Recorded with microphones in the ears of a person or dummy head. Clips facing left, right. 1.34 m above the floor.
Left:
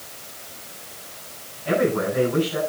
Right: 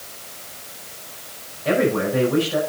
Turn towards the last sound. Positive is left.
turn(degrees=-75)  # may be behind; listen again after turning